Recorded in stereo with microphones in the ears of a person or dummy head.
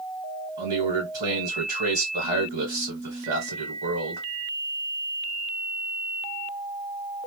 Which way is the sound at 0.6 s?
35° right (ahead or behind).